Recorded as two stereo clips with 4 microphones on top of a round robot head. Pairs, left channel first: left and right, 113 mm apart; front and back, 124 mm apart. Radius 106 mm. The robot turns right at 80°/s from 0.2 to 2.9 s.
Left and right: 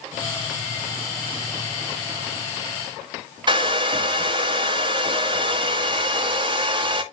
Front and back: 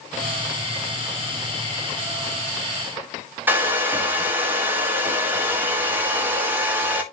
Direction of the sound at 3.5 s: 110° right.